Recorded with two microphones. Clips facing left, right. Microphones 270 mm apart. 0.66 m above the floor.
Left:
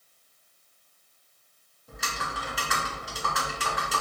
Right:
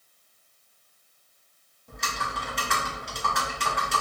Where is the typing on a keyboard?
Centre (ahead or behind), 0.8 m.